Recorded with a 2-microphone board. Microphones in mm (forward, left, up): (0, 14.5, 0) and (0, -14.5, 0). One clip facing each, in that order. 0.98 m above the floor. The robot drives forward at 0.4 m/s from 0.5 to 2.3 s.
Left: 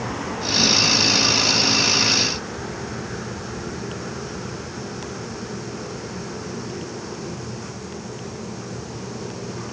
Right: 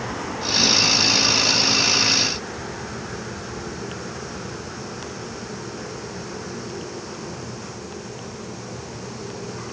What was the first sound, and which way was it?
Only background noise.